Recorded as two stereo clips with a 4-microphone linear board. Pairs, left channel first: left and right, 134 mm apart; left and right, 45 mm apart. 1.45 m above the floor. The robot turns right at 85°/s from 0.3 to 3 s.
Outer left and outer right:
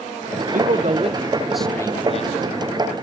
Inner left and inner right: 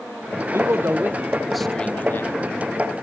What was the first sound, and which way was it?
A man speaking, 90° right.